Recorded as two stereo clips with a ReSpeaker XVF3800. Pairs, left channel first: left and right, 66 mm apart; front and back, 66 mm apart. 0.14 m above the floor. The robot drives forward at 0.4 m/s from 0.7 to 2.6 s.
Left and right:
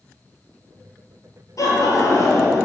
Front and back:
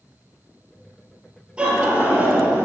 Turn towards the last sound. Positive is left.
turn(degrees=115)